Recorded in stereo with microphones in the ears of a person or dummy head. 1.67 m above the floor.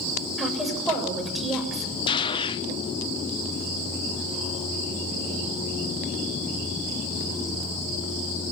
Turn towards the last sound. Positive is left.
turn(degrees=20)  # may be behind; listen again after turning